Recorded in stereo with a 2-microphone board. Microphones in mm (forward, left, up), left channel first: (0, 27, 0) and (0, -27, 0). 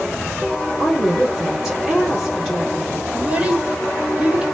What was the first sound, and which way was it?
A woman speaking, 5° right (ahead or behind).